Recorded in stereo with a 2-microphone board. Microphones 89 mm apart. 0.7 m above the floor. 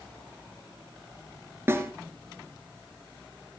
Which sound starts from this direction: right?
A snare drum, at 1.7 s.